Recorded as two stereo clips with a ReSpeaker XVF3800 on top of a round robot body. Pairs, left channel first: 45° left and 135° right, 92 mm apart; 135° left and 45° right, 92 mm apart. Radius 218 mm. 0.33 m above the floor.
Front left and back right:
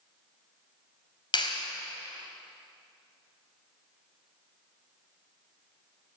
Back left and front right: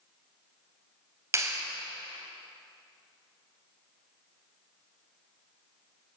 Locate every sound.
1.3 s a clap: 10° left, 3.5 m